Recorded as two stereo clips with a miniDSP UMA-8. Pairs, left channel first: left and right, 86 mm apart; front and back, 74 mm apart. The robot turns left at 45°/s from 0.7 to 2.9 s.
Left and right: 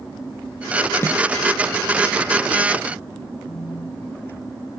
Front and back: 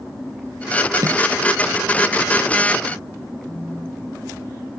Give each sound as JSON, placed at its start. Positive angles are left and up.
{"t": 1.0, "sound": "a snare drum", "azimuth_deg": 150}
{"t": 3.5, "sound": "a phone buzzing", "azimuth_deg": 95}